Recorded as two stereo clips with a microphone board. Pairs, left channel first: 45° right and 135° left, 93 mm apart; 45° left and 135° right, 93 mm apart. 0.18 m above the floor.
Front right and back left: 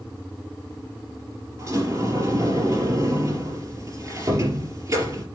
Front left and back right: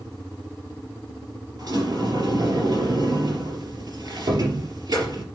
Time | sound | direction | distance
1.6 | a sliding door | 175° right | 3.5 m